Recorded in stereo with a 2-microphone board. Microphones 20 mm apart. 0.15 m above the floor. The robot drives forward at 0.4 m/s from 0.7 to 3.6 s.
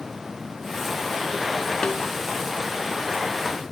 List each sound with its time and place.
1.8 s a snare drum: 45° left (ahead or behind), 0.8 m; by 2.0 s 40° left (ahead or behind), 0.8 m